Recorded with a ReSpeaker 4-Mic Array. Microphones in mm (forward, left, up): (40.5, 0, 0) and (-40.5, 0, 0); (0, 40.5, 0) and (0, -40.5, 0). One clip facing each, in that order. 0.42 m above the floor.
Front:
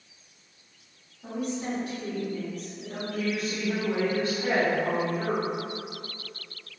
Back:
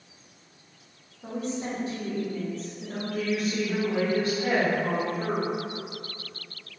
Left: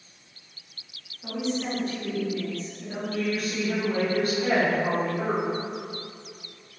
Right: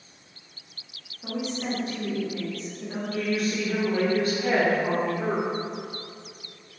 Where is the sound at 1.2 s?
155° right, 0.9 m.